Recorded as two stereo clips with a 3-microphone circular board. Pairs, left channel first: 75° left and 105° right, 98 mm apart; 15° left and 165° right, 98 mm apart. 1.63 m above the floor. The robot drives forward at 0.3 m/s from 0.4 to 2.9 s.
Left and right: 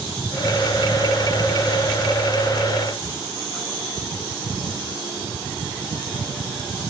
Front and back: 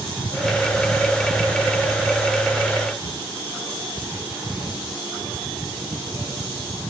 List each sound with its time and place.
Only background noise.